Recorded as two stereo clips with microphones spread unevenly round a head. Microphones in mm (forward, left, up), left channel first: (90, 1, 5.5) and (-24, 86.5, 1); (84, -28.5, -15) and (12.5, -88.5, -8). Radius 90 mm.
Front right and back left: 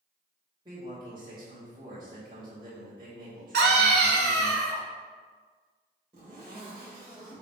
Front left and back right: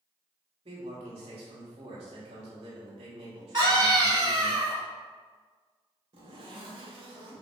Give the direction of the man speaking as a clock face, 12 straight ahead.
5 o'clock.